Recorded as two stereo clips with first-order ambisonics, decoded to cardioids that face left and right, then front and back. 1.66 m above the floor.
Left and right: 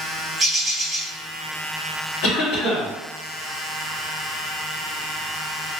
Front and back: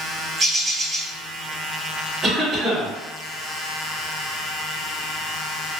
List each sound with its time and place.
0.4 s a bird: 160° right, 1.1 m
2.2 s a cough: 105° left, 1.1 m